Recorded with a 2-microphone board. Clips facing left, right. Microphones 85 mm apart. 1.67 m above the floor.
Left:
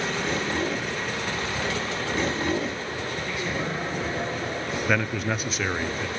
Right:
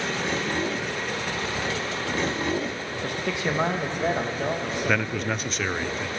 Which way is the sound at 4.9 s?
Centre (ahead or behind).